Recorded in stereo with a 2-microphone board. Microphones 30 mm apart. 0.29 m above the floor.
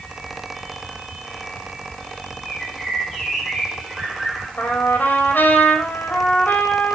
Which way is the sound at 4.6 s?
75° left (ahead or behind).